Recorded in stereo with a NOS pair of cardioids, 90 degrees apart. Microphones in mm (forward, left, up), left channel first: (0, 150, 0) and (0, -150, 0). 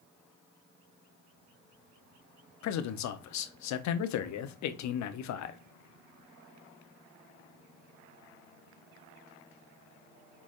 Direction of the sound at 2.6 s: 70° left.